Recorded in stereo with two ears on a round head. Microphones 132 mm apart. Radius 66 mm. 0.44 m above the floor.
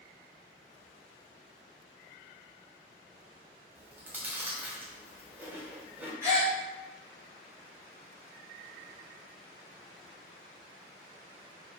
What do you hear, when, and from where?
3.8 s chewing: 10° right (ahead or behind), 0.5 m
6.2 s a gasp: 20° right (ahead or behind), 1.5 m